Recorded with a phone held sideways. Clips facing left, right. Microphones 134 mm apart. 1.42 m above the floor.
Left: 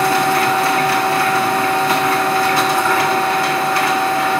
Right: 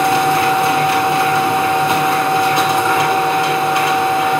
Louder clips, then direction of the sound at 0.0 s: Right 2 dB; 20° right (ahead or behind).